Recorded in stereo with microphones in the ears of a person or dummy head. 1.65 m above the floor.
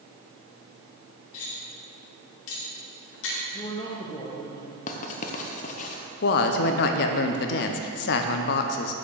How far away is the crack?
No crack in this recording.